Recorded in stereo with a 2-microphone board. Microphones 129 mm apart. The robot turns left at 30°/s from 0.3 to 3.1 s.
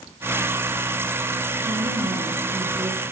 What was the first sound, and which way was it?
A woman speaking, 105° right.